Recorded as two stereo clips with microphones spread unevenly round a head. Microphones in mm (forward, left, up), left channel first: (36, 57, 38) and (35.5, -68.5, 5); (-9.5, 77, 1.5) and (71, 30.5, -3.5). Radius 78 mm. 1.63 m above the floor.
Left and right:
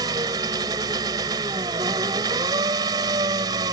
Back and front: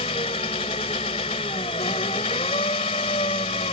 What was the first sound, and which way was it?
An engine running, 160° right.